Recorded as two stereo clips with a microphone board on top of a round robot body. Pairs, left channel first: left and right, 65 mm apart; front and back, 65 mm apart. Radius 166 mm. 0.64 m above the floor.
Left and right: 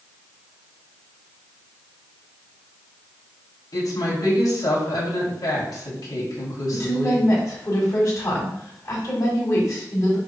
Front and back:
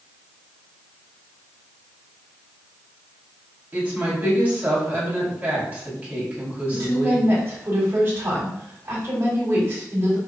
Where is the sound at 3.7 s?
115° left, 4 m.